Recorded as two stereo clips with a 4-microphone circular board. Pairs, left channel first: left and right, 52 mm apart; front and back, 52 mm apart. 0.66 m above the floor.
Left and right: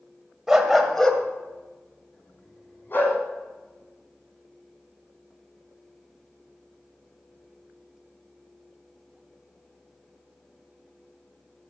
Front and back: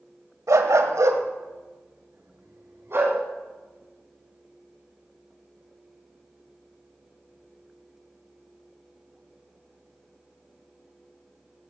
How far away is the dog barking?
About 1.4 m.